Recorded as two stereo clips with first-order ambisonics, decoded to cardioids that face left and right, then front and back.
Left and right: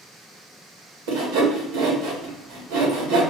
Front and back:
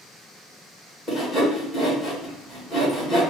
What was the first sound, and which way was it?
Sawing, 85° right.